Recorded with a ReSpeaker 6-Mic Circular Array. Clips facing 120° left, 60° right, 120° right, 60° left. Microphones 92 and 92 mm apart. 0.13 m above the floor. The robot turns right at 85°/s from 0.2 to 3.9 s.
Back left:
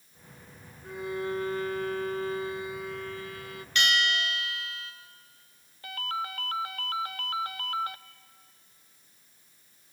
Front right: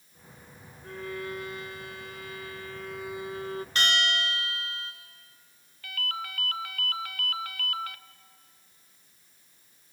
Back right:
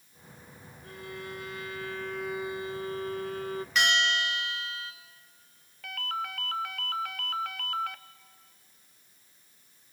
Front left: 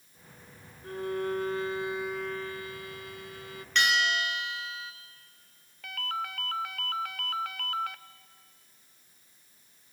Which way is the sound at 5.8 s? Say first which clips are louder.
Back left 3 dB, even; 150° left.